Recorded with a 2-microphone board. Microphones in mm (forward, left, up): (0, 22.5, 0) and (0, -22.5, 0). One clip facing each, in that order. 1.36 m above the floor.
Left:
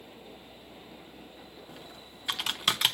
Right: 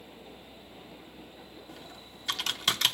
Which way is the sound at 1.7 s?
10° left (ahead or behind).